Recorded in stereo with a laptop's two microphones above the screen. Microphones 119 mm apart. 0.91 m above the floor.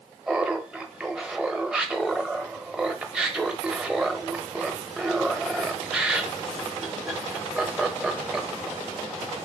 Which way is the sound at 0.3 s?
5° right (ahead or behind).